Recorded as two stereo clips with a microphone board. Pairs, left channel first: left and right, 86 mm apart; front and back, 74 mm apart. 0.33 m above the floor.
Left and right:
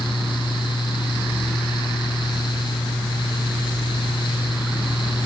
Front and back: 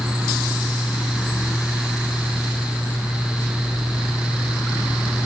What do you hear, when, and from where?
Only background noise.